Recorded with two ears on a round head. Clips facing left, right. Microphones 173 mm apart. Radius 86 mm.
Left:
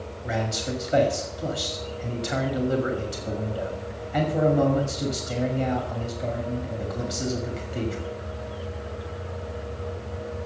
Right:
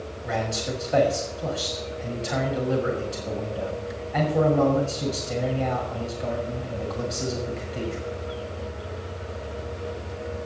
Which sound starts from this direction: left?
A man speaking, at 0.2 s.